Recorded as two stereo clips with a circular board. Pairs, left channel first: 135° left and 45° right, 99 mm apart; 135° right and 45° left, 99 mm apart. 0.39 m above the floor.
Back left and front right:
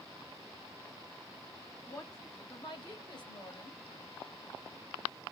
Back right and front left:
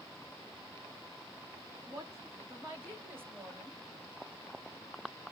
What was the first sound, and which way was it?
A woman speaking, 90° left.